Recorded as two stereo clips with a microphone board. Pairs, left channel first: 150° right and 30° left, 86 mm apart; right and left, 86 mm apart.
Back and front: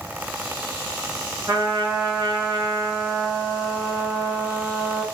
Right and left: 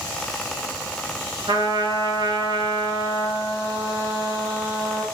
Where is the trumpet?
90° left, 4.5 m.